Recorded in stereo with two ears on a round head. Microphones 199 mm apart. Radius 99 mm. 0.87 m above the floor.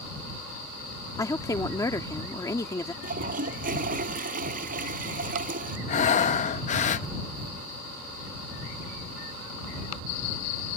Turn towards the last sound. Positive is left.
turn(degrees=35)  # may be behind; listen again after turning